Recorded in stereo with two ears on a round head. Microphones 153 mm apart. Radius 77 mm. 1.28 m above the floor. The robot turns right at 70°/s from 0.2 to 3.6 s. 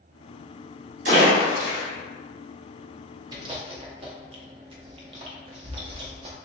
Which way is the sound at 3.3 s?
25° right (ahead or behind).